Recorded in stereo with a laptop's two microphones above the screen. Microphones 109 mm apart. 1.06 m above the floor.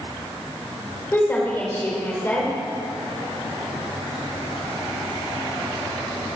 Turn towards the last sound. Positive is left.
turn(degrees=20)  # may be behind; listen again after turning